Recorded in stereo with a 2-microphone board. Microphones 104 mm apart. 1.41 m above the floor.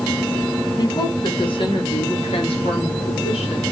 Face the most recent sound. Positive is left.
turn(degrees=75)  # may be behind; listen again after turning